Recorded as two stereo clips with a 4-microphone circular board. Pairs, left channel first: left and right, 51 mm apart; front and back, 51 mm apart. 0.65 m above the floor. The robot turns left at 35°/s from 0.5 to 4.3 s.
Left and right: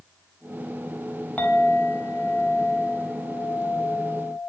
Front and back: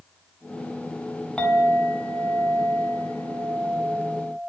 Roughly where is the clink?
Ahead left.